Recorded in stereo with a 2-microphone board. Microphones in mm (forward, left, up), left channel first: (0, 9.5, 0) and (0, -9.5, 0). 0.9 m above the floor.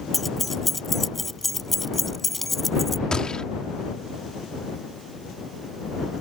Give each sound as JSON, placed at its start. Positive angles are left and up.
{"t": 0.1, "sound": "keys jangling", "side_deg": 10}
{"t": 3.1, "sound": "a gunshot", "side_deg": 45}